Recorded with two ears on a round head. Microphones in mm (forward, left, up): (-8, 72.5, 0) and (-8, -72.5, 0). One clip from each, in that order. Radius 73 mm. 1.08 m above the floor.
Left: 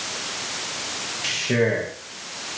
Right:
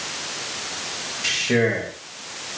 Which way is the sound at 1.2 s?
10° right (ahead or behind).